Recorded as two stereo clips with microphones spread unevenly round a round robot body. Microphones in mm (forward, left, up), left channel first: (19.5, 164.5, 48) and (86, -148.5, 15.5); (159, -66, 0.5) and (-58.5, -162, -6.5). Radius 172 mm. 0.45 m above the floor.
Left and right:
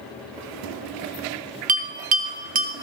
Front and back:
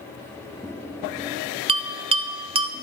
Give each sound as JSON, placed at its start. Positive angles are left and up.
{"t": 1.7, "sound": "a bell", "azimuth_deg": -110, "distance_m": 0.8}